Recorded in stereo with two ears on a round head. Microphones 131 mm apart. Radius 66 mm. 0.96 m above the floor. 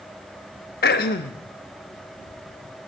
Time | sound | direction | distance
0.8 | throat clearing | 70° left (ahead or behind) | 1.0 m